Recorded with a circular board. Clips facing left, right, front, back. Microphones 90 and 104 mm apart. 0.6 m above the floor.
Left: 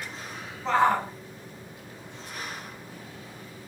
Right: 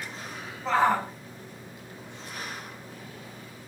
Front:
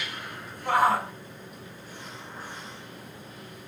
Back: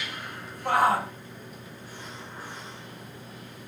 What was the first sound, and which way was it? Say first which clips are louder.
A shout: left 1 dB, even; straight behind.